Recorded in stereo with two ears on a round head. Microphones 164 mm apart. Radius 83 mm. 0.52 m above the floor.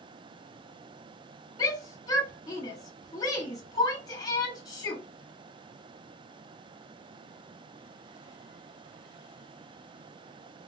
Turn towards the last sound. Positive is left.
turn(degrees=20)  # may be behind; listen again after turning